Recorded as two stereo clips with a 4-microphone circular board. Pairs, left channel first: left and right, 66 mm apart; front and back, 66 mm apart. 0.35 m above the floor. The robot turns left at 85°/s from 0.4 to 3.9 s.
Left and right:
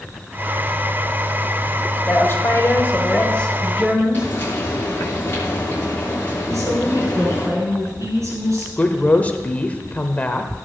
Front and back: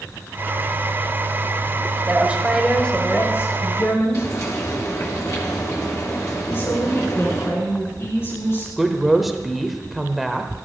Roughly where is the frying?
Ahead left.